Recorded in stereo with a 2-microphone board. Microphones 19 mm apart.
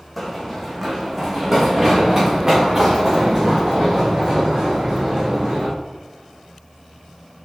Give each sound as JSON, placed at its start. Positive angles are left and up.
{"t": 0.2, "sound": "running footsteps", "side_deg": 5, "distance_m": 1.8}